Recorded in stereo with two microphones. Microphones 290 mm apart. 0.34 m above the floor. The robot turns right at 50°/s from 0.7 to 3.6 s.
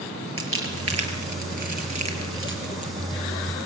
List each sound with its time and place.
0.4 s crumpling: 45° right (ahead or behind), 4.5 m; by 2.9 s 20° right (ahead or behind), 4.5 m